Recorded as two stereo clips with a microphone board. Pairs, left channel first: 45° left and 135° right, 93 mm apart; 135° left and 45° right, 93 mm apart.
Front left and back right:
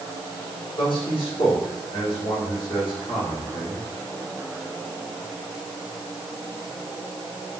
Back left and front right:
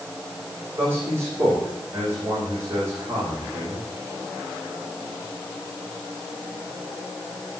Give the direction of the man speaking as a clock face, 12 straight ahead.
12 o'clock.